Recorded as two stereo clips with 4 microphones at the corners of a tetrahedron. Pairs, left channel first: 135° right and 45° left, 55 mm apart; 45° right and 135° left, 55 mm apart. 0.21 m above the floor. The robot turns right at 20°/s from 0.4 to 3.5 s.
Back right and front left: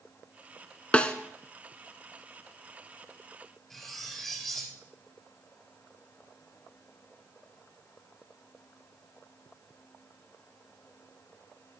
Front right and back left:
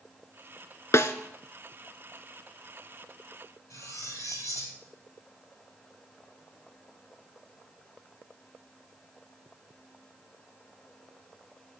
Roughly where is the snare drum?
Right.